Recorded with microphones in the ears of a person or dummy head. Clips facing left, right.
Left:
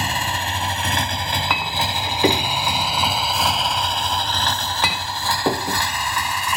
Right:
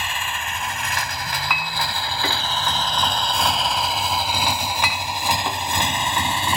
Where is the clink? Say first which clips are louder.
Left 3 dB; 20° left (ahead or behind).